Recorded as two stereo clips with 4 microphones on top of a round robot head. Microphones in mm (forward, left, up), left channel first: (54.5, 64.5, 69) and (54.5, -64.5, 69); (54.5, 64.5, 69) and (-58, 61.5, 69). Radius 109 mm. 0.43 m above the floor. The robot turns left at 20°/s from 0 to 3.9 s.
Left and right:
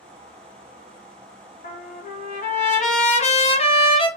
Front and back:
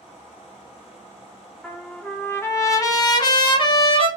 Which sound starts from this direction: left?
A trumpet, at 1.6 s.